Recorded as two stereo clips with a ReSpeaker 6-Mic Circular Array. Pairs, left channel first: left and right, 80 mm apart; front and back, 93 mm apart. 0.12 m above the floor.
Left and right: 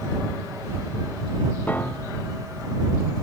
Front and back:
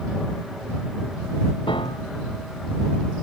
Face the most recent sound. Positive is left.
turn(degrees=20)